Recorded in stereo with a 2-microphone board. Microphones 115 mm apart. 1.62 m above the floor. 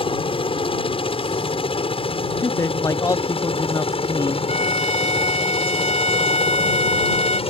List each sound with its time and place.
0.0 s a helicopter: 50° left (ahead or behind); by 7.5 s 55° left (ahead or behind)
2.4 s a man speaking: 30° left (ahead or behind)
4.5 s a violin: 75° left (ahead or behind)